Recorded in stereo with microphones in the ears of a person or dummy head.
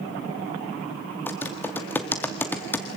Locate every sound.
1.3 s typing on a keyboard: 10° left (ahead or behind), 1.4 m